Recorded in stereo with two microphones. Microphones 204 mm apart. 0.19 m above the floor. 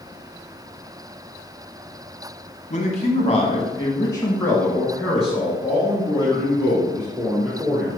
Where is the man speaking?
35° left (ahead or behind), 1.5 m; by 7.9 s 20° right (ahead or behind), 3 m.